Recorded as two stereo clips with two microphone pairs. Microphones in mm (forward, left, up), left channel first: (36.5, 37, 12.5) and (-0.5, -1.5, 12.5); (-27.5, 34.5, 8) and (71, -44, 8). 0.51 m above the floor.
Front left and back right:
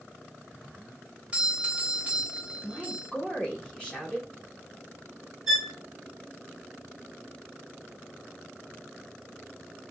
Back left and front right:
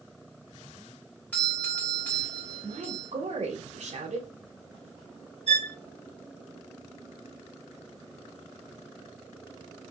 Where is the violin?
40° right, 2 m.